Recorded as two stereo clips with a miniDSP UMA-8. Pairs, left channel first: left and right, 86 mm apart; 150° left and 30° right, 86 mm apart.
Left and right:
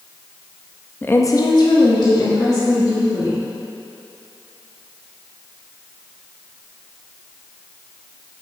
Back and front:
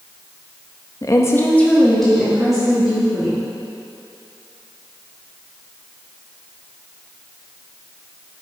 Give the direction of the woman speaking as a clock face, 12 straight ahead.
7 o'clock.